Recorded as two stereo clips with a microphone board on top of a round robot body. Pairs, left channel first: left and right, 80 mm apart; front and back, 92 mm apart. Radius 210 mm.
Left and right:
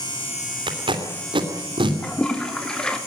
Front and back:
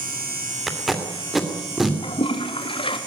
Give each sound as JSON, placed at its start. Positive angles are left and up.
{"t": 0.7, "sound": "tape being pulled", "azimuth_deg": -90, "distance_m": 2.5}
{"t": 2.0, "sound": "a toilet flushing", "azimuth_deg": 10, "distance_m": 3.0}